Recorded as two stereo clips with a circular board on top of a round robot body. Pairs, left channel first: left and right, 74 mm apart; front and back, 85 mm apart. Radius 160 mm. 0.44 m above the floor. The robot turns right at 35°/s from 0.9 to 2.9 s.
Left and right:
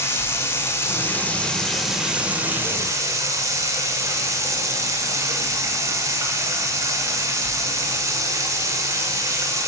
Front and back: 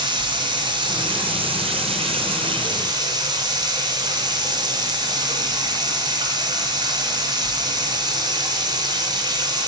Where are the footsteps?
I don't hear footsteps.